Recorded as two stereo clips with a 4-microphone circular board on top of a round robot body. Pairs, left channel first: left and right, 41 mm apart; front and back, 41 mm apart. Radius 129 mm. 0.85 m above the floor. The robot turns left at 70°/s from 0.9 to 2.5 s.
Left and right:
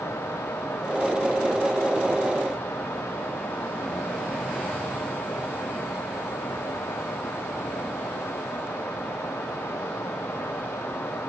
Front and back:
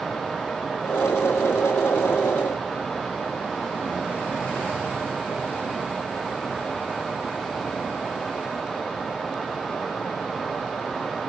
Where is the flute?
I don't hear a flute.